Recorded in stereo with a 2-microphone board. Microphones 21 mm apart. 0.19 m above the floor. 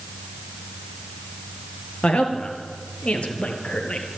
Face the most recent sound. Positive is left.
turn(degrees=70)  # may be behind; listen again after turning